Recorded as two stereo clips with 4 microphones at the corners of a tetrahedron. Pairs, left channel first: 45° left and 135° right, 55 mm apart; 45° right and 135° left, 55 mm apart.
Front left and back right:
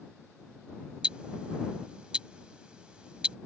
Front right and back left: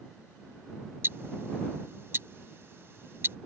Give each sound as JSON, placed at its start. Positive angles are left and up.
{"t": 1.0, "sound": "ticking", "azimuth_deg": 155}